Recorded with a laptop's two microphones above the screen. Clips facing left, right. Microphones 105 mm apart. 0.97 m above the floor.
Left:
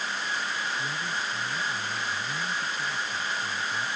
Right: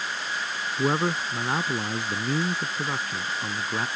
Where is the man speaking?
85° right; by 3.9 s 75° right (ahead or behind).